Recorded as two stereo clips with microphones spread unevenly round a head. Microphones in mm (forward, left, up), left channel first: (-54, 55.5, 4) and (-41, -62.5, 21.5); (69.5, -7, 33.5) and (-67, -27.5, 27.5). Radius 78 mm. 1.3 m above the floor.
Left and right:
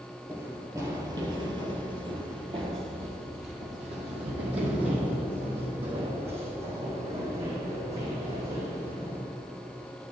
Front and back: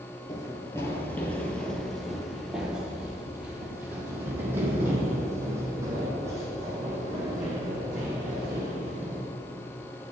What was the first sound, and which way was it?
Running footsteps, 35° right.